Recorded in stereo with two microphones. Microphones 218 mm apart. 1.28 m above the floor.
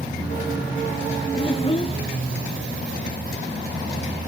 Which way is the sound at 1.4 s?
30° left (ahead or behind).